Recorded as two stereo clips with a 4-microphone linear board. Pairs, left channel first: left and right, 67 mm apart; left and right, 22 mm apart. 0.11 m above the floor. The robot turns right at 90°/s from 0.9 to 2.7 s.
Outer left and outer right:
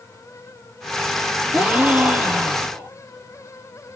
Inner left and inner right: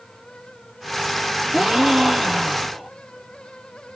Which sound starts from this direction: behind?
A gasp, at 1.5 s.